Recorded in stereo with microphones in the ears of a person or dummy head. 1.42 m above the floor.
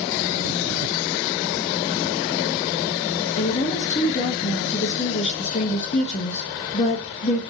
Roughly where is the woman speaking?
Left.